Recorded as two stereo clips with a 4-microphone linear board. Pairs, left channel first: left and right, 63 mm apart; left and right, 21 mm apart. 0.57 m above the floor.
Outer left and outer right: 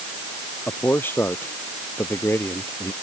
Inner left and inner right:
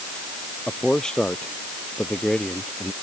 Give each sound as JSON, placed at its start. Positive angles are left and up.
{"t": 0.7, "sound": "a man speaking", "side_deg": 35}